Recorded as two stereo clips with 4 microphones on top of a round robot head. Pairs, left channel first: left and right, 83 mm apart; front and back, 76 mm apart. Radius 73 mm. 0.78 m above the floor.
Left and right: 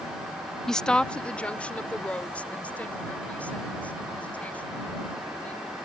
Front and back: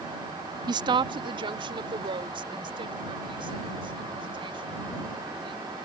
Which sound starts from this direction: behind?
A woman speaking, at 0.7 s.